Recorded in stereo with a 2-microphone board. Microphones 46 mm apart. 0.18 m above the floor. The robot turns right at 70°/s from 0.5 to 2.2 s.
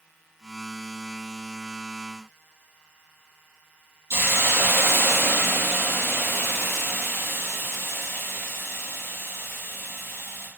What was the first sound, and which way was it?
A hiss, 75° right (ahead or behind).